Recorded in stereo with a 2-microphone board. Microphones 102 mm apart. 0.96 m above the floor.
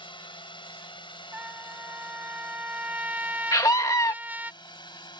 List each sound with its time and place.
0.0 s a drone: 50° left (ahead or behind); by 5.2 s 45° left (ahead or behind)
1.3 s a trumpet: 15° right (ahead or behind)
3.5 s a scream: 35° left (ahead or behind)